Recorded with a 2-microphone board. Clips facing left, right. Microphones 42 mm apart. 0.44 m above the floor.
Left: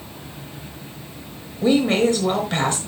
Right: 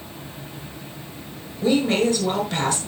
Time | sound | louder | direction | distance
1.6 | a woman speaking | left 2 dB | 45° left (ahead or behind) | 6 m